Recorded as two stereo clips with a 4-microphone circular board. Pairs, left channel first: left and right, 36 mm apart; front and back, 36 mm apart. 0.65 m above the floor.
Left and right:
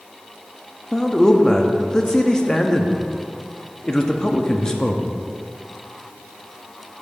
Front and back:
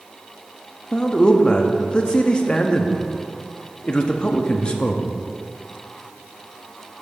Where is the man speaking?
40° left, 0.6 m.